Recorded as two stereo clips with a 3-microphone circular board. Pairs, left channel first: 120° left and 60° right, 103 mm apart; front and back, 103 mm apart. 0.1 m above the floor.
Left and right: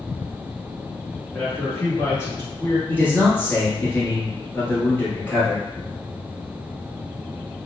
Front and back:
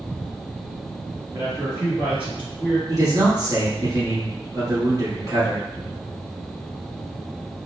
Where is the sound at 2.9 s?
Straight behind, 1.4 m.